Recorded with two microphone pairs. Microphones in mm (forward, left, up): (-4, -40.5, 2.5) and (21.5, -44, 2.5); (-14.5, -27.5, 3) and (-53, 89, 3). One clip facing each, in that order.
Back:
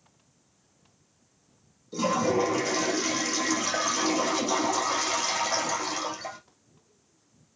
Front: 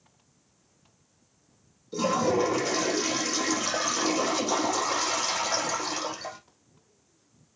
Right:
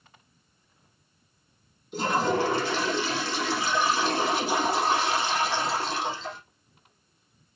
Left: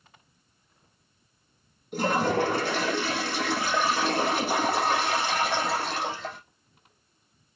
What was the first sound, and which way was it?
A toilet flushing, 75° left.